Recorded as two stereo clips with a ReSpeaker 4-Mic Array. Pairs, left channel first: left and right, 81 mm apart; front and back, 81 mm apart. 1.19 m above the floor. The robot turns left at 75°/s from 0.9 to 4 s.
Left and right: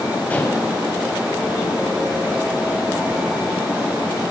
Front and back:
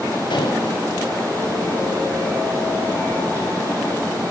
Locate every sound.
0.3 s dishes clattering: 20° left, 4.5 m